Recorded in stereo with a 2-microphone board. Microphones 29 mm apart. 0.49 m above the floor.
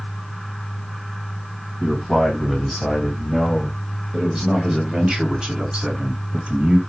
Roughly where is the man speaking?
Centre.